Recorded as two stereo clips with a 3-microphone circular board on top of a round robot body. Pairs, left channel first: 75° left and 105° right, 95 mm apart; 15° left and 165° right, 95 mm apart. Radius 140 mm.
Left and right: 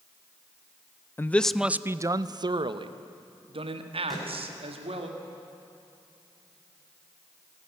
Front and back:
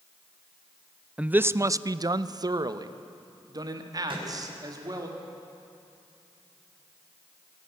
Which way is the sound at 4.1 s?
165° left.